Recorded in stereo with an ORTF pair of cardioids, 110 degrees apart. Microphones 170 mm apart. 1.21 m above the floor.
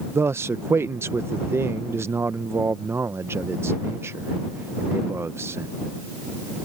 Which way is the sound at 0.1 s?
15° right.